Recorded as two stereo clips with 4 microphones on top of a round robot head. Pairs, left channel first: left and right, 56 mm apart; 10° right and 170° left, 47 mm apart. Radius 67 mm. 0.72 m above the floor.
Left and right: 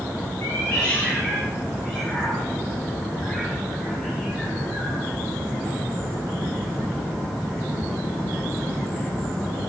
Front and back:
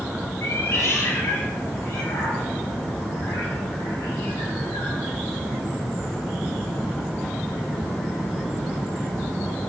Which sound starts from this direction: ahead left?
A cat meowing, at 0.4 s.